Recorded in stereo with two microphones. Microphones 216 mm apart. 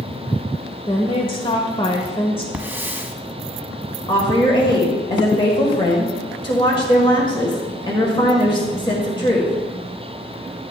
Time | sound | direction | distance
0.9 | a woman speaking | 25° left (ahead or behind) | 0.9 m
2.5 | a hiss | 10° right (ahead or behind) | 0.8 m
4.1 | a woman speaking | 20° left (ahead or behind) | 1.6 m